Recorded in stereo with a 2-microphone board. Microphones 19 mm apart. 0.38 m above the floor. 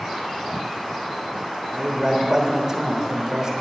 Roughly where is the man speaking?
Right.